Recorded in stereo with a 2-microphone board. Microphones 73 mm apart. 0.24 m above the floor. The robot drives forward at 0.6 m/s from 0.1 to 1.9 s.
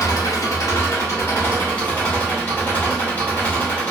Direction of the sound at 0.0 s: 55° left (ahead or behind).